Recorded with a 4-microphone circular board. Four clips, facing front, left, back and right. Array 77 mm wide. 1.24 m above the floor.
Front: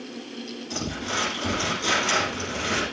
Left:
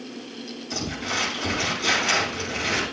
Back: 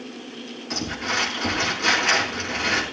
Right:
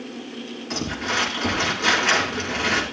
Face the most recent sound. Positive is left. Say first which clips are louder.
# right 4 dB, back 3 dB
turn(degrees=-120)